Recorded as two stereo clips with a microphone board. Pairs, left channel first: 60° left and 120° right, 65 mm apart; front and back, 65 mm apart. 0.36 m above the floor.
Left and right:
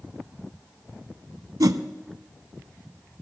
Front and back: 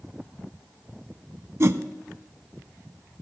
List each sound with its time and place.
1.6 s a whoosh: 135° right, 0.6 m